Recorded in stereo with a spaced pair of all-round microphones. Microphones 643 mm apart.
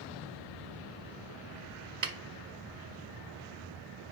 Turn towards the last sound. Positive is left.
turn(degrees=-80)